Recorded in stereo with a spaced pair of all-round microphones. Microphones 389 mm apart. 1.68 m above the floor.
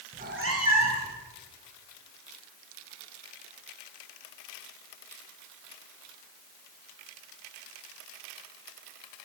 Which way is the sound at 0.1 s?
15° right (ahead or behind).